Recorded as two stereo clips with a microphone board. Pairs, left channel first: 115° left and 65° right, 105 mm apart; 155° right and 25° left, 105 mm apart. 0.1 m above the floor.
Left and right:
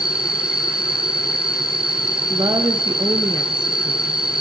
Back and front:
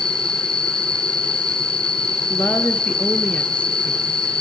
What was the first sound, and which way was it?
An insect, 150° right.